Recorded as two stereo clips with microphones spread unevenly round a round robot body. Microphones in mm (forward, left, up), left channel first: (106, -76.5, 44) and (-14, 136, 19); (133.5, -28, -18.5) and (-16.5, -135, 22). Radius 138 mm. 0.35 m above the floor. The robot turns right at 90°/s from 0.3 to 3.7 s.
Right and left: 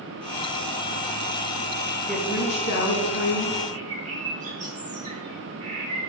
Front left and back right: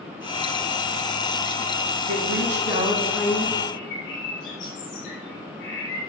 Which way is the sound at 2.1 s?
155° right.